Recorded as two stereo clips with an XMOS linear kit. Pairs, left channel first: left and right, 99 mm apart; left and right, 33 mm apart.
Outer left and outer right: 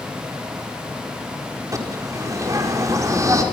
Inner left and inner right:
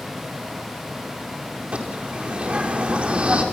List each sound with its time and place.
1.7 s a bird: 35° right (ahead or behind), 4.5 m